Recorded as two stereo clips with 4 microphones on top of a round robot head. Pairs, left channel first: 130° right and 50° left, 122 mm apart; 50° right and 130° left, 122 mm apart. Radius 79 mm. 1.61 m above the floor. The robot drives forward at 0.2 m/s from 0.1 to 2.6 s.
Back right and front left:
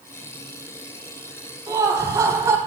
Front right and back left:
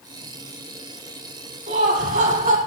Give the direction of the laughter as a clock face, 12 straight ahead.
8 o'clock.